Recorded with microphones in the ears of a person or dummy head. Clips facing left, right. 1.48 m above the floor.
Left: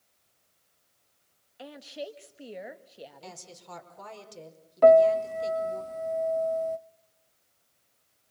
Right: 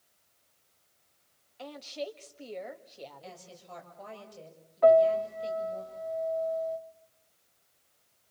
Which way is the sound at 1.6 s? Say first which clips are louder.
Right 1 dB; 10° left (ahead or behind).